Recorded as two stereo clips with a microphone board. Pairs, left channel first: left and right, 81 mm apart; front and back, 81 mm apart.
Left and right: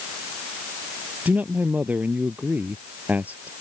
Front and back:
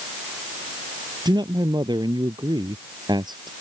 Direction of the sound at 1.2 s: 160° right.